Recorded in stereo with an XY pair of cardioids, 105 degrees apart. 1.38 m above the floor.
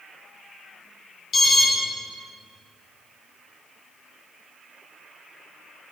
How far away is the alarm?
About 2 m.